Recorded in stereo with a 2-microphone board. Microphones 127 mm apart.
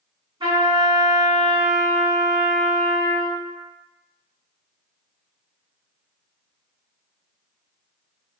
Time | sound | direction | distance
0.4 | a trumpet | 40° right (ahead or behind) | 1.8 m